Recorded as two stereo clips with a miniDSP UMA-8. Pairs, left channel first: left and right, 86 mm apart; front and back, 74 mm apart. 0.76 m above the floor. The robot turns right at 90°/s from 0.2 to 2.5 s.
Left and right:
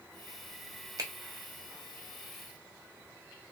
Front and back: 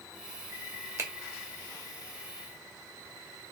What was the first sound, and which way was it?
A finger snap, 135° right.